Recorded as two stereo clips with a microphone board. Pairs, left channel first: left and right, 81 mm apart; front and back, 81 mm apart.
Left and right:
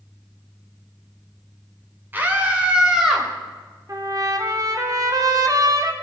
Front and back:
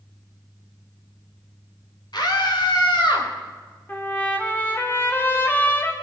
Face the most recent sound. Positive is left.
turn(degrees=-60)